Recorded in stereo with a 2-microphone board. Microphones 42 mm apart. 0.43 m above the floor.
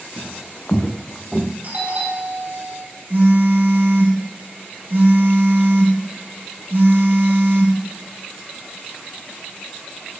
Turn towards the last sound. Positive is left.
turn(degrees=-65)  # may be behind; listen again after turning